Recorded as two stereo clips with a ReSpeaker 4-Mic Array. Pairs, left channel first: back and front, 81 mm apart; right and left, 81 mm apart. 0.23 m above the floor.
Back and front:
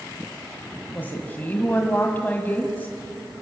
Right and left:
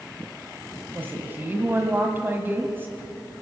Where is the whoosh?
I don't hear a whoosh.